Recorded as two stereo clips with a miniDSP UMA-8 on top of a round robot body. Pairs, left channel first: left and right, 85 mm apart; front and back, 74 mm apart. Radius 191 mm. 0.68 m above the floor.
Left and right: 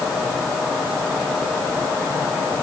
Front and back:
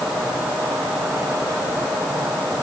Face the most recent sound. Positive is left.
No sound to turn to.